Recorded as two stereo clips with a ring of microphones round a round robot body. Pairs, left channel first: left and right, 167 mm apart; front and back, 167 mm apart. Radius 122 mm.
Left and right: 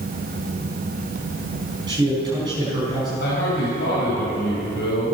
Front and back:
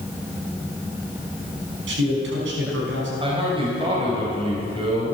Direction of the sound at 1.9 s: 165° right.